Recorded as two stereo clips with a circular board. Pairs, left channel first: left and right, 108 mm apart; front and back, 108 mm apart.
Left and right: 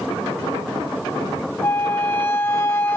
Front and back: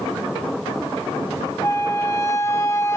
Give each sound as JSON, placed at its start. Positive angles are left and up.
{"t": 1.6, "sound": "a flute", "azimuth_deg": 40, "distance_m": 0.9}